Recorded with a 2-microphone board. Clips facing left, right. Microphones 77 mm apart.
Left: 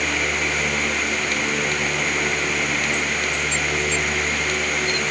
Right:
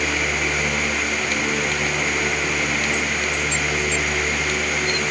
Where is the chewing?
I don't hear chewing.